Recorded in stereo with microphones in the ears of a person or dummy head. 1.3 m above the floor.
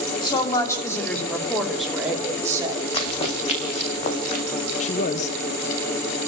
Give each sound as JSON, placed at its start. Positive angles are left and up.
{"t": 0.2, "sound": "a woman speaking", "side_deg": 20, "distance_m": 3.0}
{"t": 2.9, "sound": "running footsteps", "side_deg": 25, "distance_m": 3.5}
{"t": 4.8, "sound": "a man speaking", "side_deg": 40, "distance_m": 0.9}